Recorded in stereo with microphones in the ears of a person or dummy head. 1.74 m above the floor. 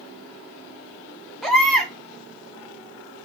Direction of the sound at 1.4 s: 10° left (ahead or behind).